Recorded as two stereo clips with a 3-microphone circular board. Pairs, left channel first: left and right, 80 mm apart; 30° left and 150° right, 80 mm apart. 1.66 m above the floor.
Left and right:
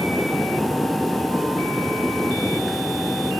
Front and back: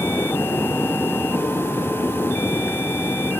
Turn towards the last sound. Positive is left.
No sound to turn to.